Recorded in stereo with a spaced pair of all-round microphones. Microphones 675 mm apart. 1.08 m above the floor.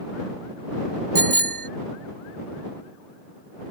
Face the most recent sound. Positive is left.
turn(degrees=-85)